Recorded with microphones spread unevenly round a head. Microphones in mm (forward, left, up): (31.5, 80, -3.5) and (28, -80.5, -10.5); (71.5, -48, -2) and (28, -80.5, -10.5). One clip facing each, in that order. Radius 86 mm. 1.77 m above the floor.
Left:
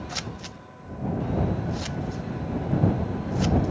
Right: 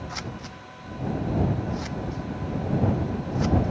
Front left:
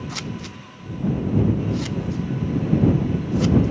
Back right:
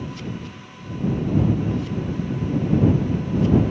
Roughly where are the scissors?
Ahead left.